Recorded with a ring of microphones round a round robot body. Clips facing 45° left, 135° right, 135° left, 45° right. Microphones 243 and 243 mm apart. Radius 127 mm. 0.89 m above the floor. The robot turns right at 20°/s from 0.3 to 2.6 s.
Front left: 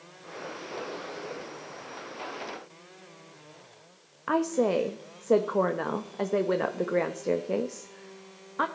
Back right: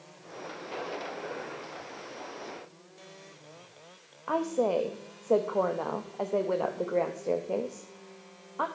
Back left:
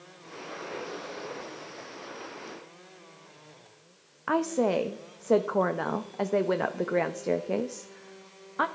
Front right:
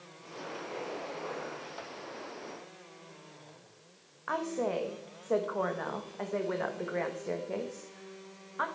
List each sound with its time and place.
4.3 s a woman speaking: 105° left, 0.7 m